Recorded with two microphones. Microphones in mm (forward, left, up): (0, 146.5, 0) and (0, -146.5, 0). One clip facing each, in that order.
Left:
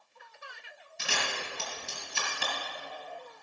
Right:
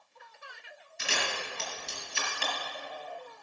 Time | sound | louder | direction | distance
1.0 | a camera shutter | right 1 dB | 45° left (ahead or behind) | 4.5 m